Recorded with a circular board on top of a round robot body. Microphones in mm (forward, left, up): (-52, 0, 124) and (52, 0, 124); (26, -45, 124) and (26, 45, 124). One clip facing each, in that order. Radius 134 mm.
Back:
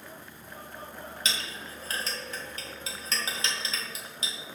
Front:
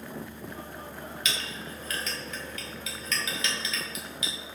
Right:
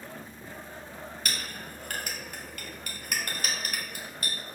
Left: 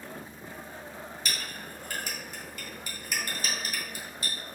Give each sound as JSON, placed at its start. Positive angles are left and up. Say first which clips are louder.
{"t": 1.2, "sound": "a clink", "louder": "even, right 1 dB", "azimuth_deg": -125, "distance_m": 2.0}